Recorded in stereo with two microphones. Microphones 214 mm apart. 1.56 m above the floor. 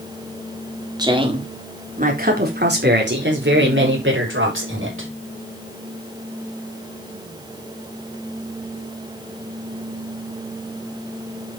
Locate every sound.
1.0 s a woman speaking: 20° right (ahead or behind), 3.5 m; by 5.1 s 80° right, 6.5 m